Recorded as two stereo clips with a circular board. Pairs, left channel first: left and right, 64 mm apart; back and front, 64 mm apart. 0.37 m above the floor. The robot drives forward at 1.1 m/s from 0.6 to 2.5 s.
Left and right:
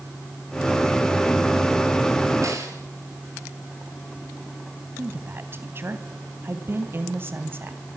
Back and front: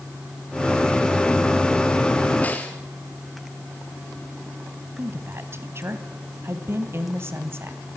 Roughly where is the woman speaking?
Ahead right.